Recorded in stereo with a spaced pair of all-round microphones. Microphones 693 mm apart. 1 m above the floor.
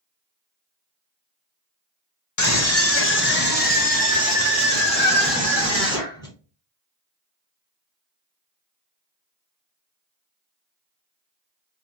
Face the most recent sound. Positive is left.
turn(degrees=5)  # may be behind; listen again after turning